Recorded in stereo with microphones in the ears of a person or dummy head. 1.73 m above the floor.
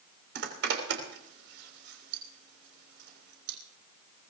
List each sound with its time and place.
0.3 s a zipper: 65° right (ahead or behind), 3.5 m